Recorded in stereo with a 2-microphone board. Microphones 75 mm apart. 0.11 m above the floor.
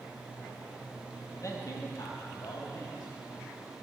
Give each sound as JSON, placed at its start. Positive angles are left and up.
{"t": 1.3, "sound": "a man speaking", "side_deg": 45, "distance_m": 2.5}